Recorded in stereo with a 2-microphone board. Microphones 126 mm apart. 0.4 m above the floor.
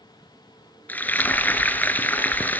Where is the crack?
I don't hear a crack.